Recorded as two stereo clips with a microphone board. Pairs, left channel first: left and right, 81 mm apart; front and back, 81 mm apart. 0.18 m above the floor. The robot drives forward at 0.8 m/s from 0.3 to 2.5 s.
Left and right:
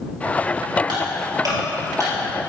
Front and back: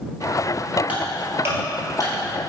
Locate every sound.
0.9 s ticking: 110° right, 1.6 m; by 2.1 s 135° right, 2 m